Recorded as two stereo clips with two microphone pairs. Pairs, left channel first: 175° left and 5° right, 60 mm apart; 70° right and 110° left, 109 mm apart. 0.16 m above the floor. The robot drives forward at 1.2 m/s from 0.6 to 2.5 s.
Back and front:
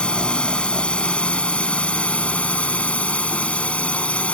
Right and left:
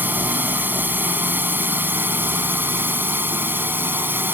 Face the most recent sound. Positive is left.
turn(degrees=150)